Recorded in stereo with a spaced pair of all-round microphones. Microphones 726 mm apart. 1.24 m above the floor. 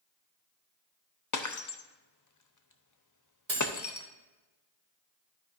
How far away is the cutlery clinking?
About 2.5 m.